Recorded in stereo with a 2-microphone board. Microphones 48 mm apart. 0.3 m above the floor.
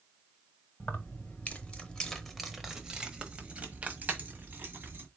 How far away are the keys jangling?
About 1.0 m.